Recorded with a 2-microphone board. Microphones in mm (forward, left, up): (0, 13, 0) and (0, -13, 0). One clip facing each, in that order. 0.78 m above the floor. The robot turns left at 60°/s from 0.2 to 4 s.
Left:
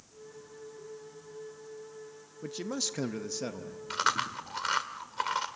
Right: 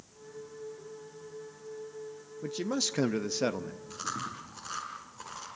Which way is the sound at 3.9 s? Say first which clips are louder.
Left 9 dB; 85° left.